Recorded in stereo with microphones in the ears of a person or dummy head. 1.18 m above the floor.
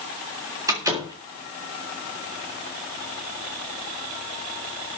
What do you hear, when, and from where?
0.7 s a door slam: 20° right (ahead or behind), 3.5 m